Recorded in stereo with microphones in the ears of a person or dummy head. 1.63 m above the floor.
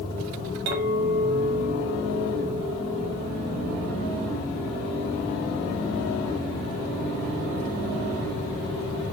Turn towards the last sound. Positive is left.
turn(degrees=-70)  # may be behind; listen again after turning